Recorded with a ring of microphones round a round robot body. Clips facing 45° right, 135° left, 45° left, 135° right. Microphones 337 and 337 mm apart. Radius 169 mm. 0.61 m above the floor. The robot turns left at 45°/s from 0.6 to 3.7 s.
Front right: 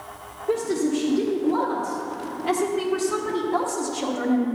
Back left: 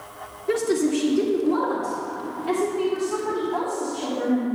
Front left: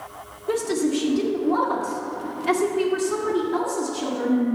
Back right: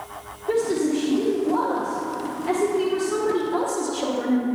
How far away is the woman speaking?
About 1.6 m.